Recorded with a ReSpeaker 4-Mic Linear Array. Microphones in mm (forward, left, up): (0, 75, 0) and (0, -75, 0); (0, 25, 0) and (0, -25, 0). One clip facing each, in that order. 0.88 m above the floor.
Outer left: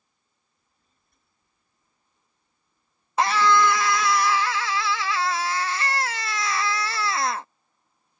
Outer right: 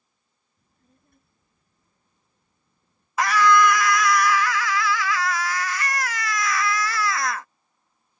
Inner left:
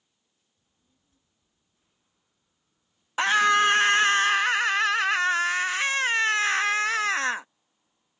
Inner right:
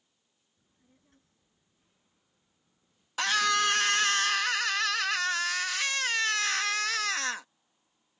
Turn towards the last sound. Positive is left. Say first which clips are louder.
# outer right 2 dB, inner left 6 dB
turn(degrees=25)  # may be behind; listen again after turning